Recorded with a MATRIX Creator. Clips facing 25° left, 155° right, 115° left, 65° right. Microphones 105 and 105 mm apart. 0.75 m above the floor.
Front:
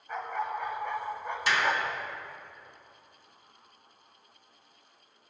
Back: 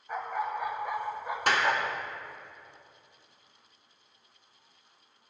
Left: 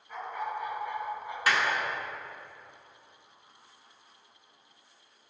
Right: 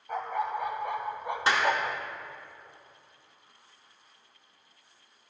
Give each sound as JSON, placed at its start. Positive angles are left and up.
{"t": 0.1, "sound": "a dog barking", "azimuth_deg": -75, "distance_m": 1.7}
{"t": 1.5, "sound": "a clap", "azimuth_deg": -130, "distance_m": 1.8}